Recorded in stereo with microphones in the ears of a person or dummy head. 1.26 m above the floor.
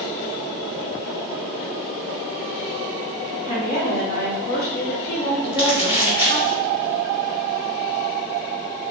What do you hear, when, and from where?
3.5 s a woman speaking: 20° left (ahead or behind), 1.3 m
5.5 s crumpling: 25° left (ahead or behind), 1.0 m